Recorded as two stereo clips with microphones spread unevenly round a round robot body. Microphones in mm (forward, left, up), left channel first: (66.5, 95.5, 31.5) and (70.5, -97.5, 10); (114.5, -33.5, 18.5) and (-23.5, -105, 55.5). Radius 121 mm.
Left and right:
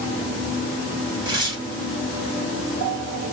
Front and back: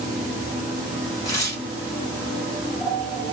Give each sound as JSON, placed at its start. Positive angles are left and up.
{"t": 1.2, "sound": "tearing paper", "azimuth_deg": -30, "distance_m": 2.0}